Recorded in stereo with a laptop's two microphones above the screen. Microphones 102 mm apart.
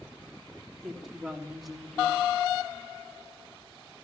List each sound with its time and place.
0.8 s a woman speaking: centre (ahead or behind), 3 m